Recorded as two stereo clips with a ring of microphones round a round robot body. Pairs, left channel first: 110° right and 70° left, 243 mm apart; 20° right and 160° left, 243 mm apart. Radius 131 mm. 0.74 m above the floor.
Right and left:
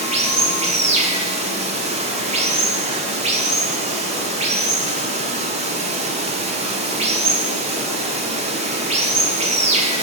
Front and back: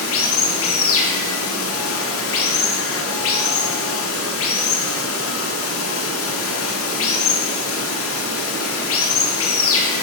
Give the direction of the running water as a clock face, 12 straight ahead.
12 o'clock.